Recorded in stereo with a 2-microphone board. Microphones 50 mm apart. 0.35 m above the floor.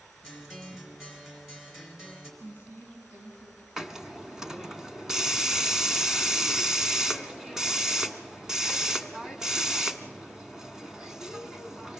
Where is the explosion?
No explosion in this recording.